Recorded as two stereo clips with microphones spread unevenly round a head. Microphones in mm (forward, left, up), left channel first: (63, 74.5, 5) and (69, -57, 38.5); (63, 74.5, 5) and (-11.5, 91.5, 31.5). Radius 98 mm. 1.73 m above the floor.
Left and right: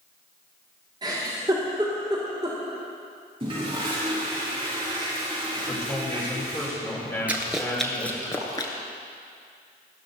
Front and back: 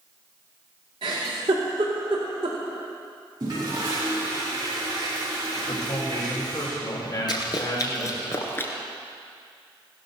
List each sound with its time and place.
1.0 s a giggle: 155° right, 2.5 m
3.4 s a toilet flushing: 145° right, 3.5 m
5.7 s a man speaking: 20° left, 6 m
7.3 s running footsteps: 45° right, 2.0 m; by 8.7 s 60° left, 1.7 m